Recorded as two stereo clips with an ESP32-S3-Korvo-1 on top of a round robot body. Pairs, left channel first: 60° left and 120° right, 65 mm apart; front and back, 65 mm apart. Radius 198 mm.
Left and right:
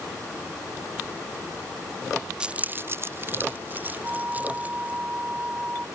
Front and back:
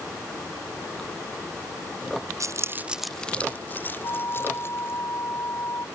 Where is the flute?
50° right.